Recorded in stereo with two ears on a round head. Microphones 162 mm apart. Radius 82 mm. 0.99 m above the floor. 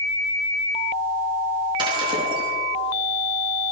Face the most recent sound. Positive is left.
turn(degrees=-25)  # may be behind; listen again after turning